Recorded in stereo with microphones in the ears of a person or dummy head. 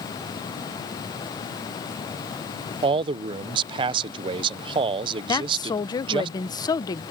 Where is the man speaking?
30° right (ahead or behind).